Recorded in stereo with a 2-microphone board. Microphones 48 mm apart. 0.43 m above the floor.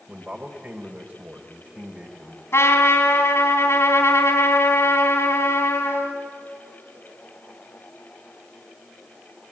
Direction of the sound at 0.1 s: 35° right (ahead or behind).